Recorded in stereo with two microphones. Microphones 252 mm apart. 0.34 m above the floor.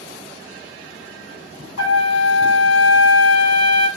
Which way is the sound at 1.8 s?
75° left (ahead or behind).